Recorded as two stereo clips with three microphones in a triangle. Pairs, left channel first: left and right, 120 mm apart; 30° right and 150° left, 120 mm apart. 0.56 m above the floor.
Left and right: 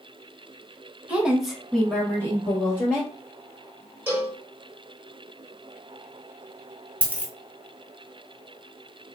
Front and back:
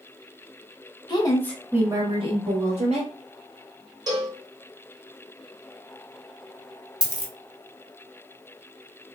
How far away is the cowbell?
About 1.1 m.